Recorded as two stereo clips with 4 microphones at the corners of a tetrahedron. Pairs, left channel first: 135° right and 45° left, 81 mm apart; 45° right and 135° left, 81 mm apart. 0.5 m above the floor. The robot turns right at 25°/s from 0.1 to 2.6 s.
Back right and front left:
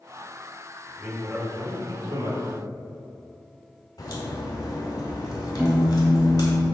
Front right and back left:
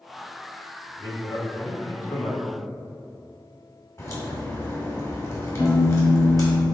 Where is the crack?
95° right, 2.0 m.